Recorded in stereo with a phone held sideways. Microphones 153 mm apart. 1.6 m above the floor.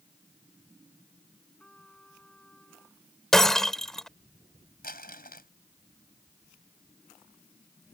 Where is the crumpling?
75° left (ahead or behind).